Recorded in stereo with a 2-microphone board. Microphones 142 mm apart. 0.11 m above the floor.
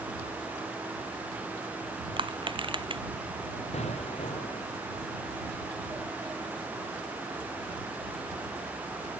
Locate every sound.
2.2 s crushing: 35° right (ahead or behind)
3.7 s an explosion: 50° left (ahead or behind)